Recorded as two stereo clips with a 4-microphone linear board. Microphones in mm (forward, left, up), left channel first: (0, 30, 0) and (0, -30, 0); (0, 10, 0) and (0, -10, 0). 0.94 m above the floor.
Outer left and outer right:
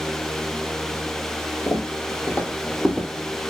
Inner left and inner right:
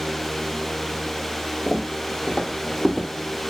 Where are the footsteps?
45° left (ahead or behind), 1.3 m; by 3.1 s 5° left (ahead or behind), 1.1 m.